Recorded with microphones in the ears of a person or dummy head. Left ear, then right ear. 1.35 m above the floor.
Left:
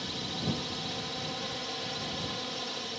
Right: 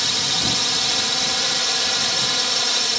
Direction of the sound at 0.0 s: 60° right (ahead or behind).